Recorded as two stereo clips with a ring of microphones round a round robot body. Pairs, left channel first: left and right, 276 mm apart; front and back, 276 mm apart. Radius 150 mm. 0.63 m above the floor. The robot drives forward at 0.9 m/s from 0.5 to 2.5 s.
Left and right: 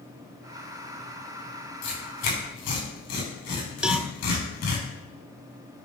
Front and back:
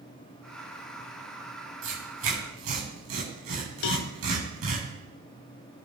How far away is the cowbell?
About 0.8 m.